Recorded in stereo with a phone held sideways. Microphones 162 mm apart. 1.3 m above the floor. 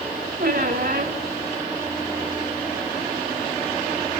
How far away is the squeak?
About 3 m.